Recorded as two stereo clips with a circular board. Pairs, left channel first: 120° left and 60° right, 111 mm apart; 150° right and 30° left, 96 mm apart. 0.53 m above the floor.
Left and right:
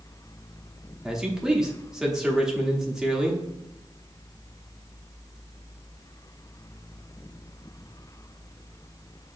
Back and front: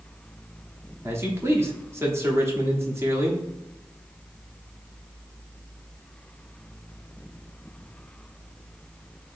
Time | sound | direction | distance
1.0 | a man speaking | 20° left | 0.9 m